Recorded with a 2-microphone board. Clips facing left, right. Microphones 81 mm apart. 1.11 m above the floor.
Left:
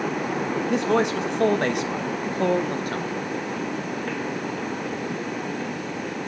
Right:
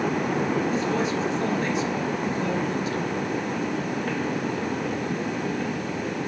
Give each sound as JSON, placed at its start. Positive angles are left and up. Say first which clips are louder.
{"t": 0.7, "sound": "a man speaking", "louder": "left 3 dB", "side_deg": 70, "distance_m": 2.0}